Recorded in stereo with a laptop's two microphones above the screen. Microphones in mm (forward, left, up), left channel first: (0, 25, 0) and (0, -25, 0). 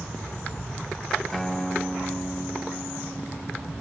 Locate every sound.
1.3 s a guitar: 5° left (ahead or behind)